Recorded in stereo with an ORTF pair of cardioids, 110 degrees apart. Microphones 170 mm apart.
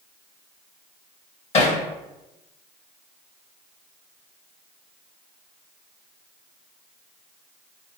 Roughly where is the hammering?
Ahead left.